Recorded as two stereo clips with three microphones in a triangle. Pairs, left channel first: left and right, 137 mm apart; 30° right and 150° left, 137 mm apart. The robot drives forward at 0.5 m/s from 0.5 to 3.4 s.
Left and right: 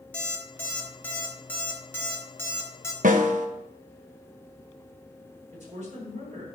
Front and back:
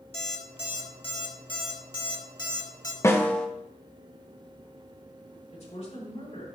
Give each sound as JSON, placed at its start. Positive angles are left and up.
{"t": 0.1, "sound": "an alarm clock", "azimuth_deg": 10, "distance_m": 2.5}
{"t": 3.0, "sound": "a snare drum", "azimuth_deg": -100, "distance_m": 0.8}
{"t": 5.5, "sound": "a woman speaking", "azimuth_deg": -65, "distance_m": 5.0}